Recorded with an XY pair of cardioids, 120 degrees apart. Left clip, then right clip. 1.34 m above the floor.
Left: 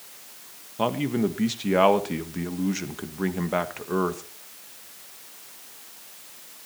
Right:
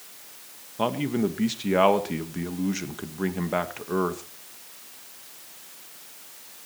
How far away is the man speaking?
About 1.6 m.